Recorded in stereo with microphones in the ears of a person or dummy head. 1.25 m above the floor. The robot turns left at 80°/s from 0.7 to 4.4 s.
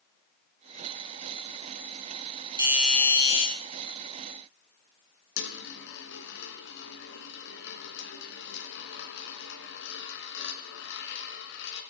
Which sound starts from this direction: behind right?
A doorbell, at 2.6 s.